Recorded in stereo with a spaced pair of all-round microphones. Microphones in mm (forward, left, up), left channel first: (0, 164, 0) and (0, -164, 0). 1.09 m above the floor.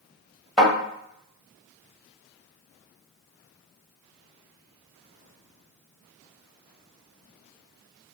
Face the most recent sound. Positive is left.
turn(degrees=0)  # may be behind; listen again after turning